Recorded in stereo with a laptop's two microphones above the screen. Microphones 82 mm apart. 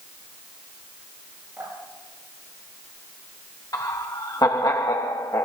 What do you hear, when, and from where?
1.6 s dripping: 30° right (ahead or behind), 9 m
3.7 s laughter: 50° left (ahead or behind), 1.2 m